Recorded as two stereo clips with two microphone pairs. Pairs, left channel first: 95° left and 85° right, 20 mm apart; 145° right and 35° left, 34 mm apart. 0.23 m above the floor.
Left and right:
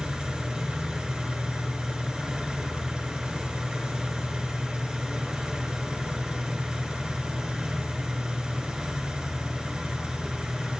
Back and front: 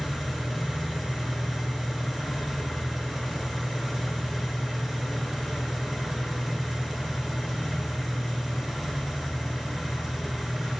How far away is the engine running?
About 1.4 m.